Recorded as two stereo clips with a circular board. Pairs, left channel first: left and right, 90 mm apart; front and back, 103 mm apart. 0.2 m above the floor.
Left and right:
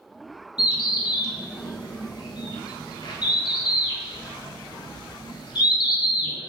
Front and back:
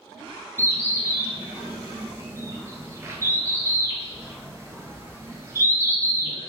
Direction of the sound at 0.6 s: 120° left.